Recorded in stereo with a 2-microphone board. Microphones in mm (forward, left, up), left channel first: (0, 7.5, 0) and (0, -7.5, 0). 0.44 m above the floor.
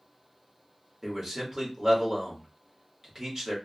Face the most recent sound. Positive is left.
turn(degrees=-40)  # may be behind; listen again after turning